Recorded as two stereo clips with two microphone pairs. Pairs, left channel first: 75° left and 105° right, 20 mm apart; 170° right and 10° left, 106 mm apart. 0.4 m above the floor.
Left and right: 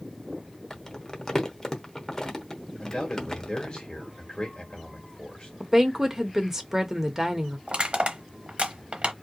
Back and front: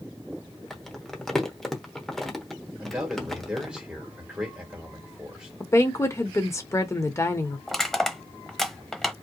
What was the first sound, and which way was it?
Crumpling, 100° left.